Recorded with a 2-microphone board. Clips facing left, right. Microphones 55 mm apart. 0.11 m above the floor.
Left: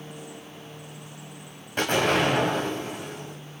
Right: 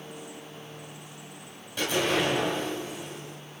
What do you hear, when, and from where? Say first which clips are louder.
1.8 s an explosion: left 4 dB; 45° left (ahead or behind), 7 m